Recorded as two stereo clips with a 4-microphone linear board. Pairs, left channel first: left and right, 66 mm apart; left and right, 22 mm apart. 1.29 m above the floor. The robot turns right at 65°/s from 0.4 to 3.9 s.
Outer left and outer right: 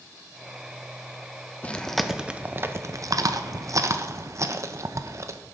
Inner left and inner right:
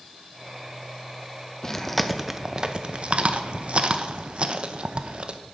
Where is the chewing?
25° left (ahead or behind), 0.6 m; by 5.4 s 50° right (ahead or behind), 0.6 m.